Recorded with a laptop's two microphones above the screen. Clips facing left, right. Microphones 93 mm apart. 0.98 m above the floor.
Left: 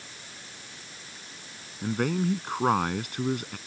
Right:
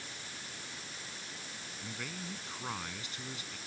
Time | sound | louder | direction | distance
1.8 | a man speaking | left 18 dB | 60° left (ahead or behind) | ?